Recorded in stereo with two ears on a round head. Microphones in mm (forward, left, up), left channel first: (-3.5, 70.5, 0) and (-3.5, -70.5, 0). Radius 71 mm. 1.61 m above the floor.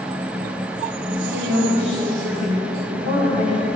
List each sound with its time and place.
1.1 s a woman speaking: 60° right (ahead or behind), 8.5 m; by 3.7 s 55° right (ahead or behind), 10 m